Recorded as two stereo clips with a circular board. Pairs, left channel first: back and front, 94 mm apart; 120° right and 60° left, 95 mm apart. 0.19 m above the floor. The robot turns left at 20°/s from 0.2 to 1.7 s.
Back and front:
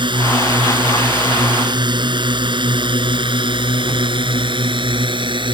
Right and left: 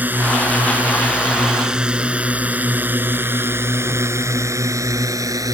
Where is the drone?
5° right; by 5.5 s 15° left.